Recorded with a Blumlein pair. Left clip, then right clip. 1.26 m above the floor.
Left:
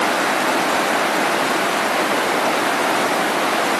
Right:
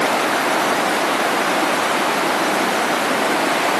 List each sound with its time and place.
Only background noise.